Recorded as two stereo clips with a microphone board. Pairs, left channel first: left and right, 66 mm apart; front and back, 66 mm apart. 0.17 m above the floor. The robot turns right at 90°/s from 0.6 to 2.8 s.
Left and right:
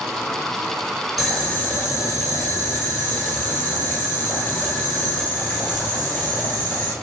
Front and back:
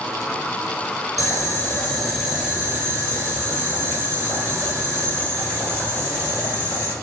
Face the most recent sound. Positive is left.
turn(degrees=145)